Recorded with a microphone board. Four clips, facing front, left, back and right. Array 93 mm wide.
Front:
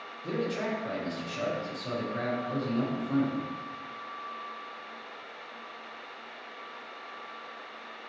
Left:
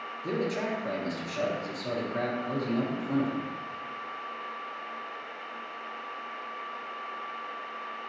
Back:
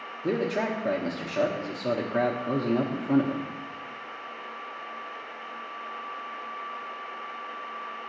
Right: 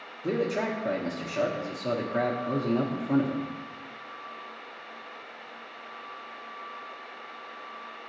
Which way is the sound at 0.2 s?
160° right.